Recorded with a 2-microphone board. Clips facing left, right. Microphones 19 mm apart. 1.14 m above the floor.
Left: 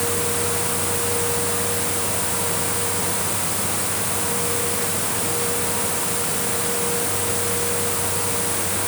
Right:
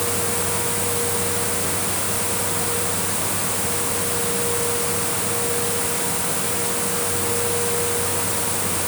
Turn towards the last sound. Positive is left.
No sound to turn to.